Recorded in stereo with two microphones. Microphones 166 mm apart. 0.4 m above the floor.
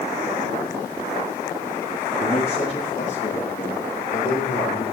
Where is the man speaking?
35° left (ahead or behind), 8.5 m; by 4.8 s 55° left (ahead or behind), 6.5 m.